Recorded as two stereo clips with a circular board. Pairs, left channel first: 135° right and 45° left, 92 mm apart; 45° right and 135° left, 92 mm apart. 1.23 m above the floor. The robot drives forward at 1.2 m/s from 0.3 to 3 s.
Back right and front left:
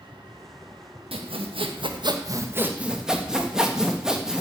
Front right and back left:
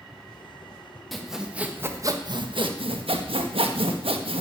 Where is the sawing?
45° left, 1.8 m; by 4.4 s 130° left, 1.6 m.